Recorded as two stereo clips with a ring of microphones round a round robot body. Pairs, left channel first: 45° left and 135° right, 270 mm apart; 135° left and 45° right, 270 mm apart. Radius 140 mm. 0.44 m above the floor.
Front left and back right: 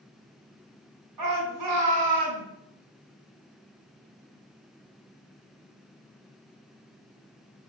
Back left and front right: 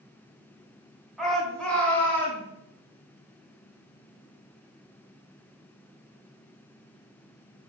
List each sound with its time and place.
1.2 s a shout: 135° right, 5.5 m; by 2.5 s 145° right, 7.5 m